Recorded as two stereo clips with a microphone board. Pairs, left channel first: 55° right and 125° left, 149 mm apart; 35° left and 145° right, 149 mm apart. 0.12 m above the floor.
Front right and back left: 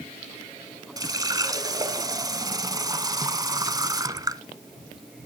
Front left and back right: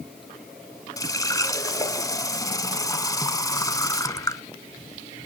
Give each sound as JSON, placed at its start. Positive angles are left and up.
{"t": 1.0, "sound": "a running tap", "azimuth_deg": 80, "distance_m": 0.9}